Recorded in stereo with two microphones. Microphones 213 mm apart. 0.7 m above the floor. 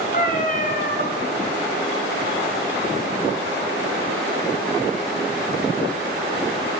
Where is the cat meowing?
40° left (ahead or behind), 1.2 m.